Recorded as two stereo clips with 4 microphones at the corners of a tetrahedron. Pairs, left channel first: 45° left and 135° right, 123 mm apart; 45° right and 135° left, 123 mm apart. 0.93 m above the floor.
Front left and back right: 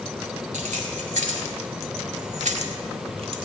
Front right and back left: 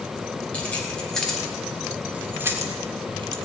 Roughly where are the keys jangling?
Behind right.